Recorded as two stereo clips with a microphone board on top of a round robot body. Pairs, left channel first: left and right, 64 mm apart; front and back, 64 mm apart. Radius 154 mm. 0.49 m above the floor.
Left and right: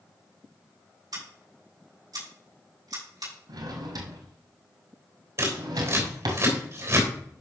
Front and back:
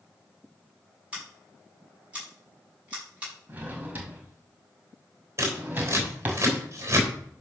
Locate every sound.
1.1 s scissors: 105° right, 6.5 m
3.5 s a drawer: 115° right, 1.8 m
5.4 s scissors: 130° right, 3.5 m